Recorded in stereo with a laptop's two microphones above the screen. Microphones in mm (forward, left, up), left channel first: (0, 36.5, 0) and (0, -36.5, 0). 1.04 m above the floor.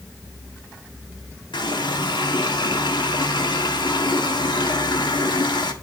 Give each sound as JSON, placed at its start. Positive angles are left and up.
{"t": 1.5, "sound": "a running tap", "side_deg": 80, "distance_m": 1.6}